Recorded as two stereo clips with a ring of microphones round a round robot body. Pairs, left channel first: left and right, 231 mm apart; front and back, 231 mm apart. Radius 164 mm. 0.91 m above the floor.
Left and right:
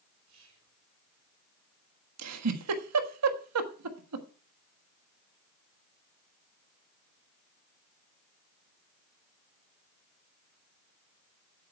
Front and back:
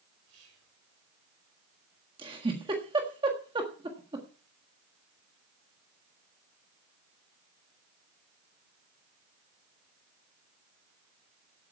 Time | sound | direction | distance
0.3 | whispering | 130° right | 4.5 m
2.2 | a giggle | 105° right | 1.4 m